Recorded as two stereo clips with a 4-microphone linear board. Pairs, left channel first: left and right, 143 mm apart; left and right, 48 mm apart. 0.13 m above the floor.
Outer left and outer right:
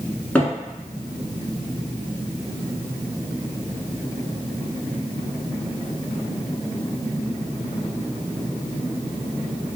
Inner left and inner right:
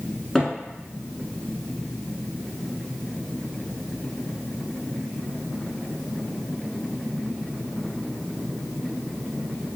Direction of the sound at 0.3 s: 10° left (ahead or behind).